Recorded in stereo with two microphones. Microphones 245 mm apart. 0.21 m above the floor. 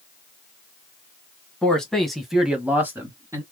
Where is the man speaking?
5° left (ahead or behind), 2 m; by 3.4 s 10° right (ahead or behind), 1.7 m.